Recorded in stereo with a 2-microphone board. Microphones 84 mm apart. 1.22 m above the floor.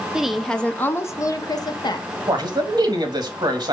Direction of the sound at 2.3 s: 55° right (ahead or behind).